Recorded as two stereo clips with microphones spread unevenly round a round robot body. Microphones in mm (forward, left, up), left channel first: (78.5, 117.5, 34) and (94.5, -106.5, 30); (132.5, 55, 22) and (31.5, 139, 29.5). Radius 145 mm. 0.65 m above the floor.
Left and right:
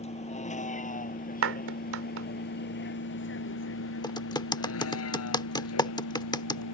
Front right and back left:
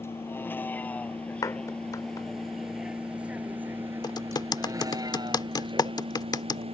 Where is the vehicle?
35° left; by 6.8 s 100° left.